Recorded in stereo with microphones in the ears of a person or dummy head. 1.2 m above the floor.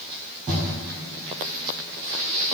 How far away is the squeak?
I don't hear a squeak.